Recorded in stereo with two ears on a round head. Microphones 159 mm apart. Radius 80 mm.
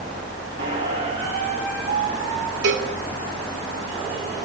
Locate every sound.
0.6 s a squeak: 40° right (ahead or behind), 5 m
2.6 s a cowbell: 75° right (ahead or behind), 3 m